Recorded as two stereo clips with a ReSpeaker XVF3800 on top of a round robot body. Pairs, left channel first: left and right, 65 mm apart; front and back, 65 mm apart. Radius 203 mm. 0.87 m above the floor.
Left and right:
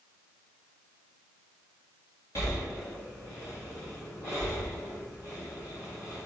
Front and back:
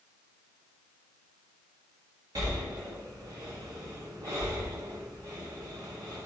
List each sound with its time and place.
2.4 s breathing: 135° left, 1.3 m